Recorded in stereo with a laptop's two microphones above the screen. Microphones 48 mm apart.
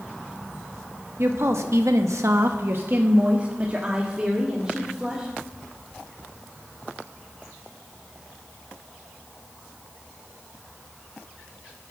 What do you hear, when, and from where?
1.2 s a woman speaking: 60° right (ahead or behind), 1.1 m; by 5.3 s 10° right (ahead or behind), 2.5 m